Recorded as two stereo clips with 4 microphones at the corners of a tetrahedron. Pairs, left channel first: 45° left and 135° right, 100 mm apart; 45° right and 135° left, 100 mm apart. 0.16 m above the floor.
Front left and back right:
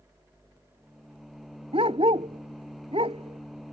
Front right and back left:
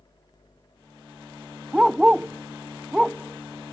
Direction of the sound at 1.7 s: 140° right.